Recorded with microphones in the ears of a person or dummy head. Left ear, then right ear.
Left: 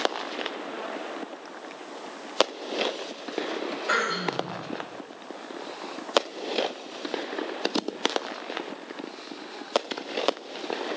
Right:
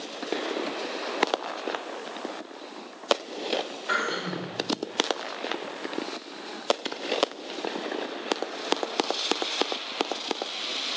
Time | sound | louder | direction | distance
3.9 | throat clearing | left 2 dB | 20° left (ahead or behind) | 4 m